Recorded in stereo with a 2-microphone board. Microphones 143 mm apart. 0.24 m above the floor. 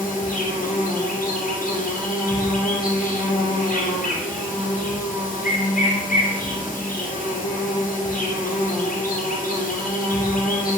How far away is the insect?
About 2.5 m.